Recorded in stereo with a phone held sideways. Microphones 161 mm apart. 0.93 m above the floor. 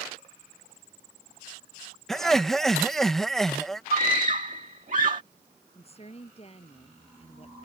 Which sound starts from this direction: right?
A scream, at 3.9 s.